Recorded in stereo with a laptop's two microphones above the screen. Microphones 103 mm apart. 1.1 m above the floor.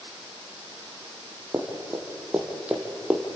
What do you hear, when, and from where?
1.5 s running footsteps: 15° right (ahead or behind), 2.5 m; by 3.4 s 5° right (ahead or behind), 1.5 m